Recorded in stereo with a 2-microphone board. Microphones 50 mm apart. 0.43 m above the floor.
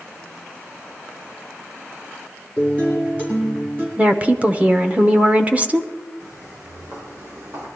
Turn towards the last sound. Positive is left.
turn(degrees=-85)